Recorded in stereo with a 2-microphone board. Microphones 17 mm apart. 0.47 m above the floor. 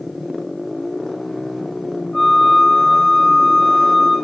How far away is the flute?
About 1.1 m.